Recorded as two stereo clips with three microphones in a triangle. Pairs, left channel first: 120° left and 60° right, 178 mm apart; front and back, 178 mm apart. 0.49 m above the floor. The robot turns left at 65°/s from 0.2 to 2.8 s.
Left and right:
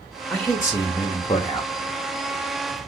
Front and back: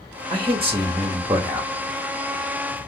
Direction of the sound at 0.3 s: 175° right.